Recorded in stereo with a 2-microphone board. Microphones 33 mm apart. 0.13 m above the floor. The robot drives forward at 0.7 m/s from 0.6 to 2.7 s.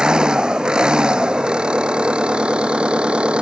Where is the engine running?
25° right (ahead or behind); by 3.4 s 30° right (ahead or behind).